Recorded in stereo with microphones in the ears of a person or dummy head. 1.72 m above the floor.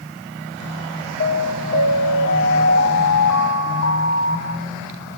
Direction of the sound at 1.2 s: 60° left (ahead or behind).